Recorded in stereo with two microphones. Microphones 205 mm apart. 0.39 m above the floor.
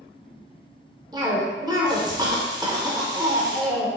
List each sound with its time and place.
1.1 s a cough: 20° right (ahead or behind), 0.8 m